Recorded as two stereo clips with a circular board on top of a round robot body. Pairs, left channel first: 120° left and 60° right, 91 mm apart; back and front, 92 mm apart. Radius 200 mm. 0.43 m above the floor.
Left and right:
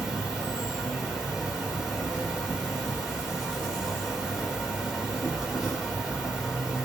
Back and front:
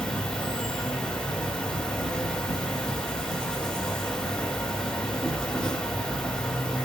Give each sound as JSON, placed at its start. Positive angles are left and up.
{"t": 0.0, "sound": "an insect", "azimuth_deg": -125, "distance_m": 2.0}